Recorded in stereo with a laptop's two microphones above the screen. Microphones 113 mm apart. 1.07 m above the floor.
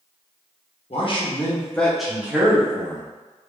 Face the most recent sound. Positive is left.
turn(degrees=-35)  # may be behind; listen again after turning